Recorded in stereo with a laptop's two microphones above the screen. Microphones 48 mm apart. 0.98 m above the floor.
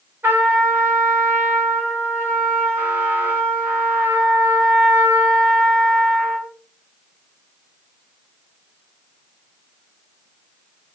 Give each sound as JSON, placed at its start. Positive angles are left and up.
{"t": 0.2, "sound": "a trumpet", "side_deg": -50, "distance_m": 2.5}